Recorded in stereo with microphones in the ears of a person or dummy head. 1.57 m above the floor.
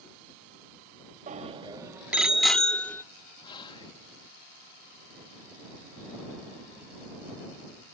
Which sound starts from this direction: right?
A bicycle bell, at 1.3 s.